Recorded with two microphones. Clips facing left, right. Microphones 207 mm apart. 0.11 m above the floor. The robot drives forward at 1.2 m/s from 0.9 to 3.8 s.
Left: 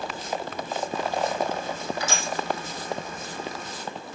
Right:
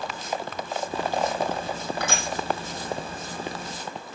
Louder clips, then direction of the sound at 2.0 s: Right 1 dB; 60° right (ahead or behind).